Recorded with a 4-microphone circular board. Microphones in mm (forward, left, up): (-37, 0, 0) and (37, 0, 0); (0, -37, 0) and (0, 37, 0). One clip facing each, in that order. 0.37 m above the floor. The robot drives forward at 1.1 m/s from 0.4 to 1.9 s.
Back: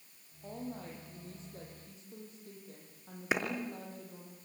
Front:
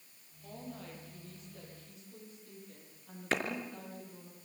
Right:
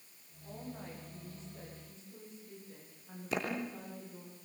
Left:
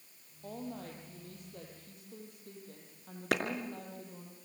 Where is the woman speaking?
115° left, 8.5 m; by 4.3 s 125° left, 9.5 m.